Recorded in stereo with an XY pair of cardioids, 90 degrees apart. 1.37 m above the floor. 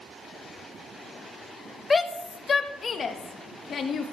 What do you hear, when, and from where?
1.9 s a shout: 35° left, 1.3 m; by 4.1 s 65° left, 2 m